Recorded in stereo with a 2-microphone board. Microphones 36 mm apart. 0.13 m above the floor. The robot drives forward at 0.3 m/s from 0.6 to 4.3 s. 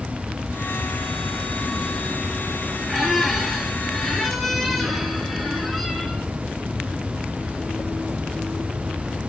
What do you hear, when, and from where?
2.9 s a squeak: 5° left (ahead or behind), 2 m